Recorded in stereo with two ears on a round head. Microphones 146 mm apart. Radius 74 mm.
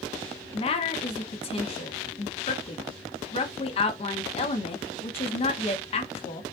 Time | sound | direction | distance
0.5 | a woman speaking | 40° left (ahead or behind) | 0.9 m